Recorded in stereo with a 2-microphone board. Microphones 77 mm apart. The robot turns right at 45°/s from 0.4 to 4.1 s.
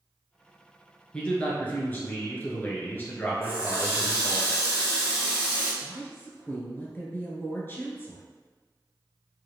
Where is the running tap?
60° left, 1.8 m; by 5.7 s 90° left, 1.8 m.